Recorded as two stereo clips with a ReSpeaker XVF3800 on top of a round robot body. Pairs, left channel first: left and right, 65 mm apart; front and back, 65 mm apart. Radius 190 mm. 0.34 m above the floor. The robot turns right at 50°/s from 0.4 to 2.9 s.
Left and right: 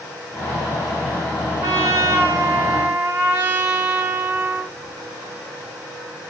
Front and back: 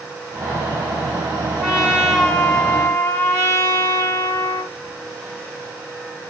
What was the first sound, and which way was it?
A trumpet, 110° right.